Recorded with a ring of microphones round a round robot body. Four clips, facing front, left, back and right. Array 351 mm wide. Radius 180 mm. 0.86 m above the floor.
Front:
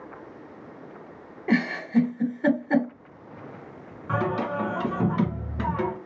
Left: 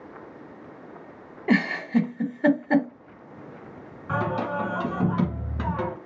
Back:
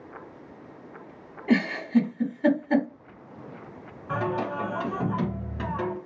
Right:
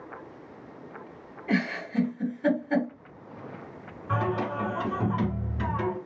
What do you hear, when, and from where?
1.5 s a giggle: 75° left, 0.8 m
4.1 s singing: 40° left, 1.5 m